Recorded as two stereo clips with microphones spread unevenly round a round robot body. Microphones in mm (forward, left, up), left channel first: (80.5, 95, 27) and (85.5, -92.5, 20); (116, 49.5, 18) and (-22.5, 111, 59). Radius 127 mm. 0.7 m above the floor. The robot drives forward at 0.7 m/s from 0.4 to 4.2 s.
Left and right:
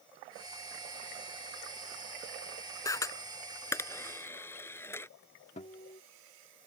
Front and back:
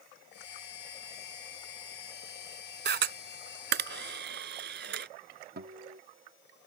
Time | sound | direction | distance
2.9 | a camera shutter | 170° left | ?
5.6 | a guitar | 150° left | ?